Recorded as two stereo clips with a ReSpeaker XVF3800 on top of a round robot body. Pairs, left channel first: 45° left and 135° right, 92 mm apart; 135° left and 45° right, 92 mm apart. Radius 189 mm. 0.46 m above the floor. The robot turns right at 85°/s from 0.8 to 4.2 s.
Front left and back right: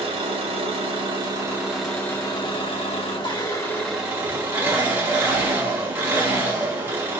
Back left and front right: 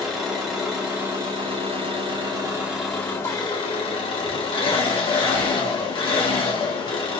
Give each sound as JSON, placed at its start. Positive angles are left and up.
{"t": 0.0, "sound": "an engine running", "azimuth_deg": -130, "distance_m": 1.9}